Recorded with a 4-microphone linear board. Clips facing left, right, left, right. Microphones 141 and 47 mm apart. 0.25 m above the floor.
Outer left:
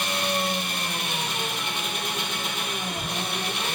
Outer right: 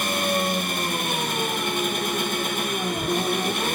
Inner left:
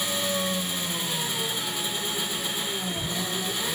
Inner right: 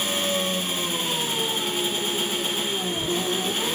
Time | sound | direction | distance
0.0 | an engine running | 50° right (ahead or behind) | 1.6 m